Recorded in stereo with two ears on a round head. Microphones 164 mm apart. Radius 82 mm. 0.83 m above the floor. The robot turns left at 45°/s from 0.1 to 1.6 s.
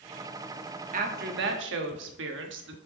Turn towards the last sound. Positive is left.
turn(degrees=-75)